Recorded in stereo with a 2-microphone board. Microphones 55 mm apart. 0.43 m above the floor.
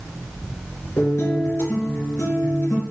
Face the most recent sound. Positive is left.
turn(degrees=60)  # may be behind; listen again after turning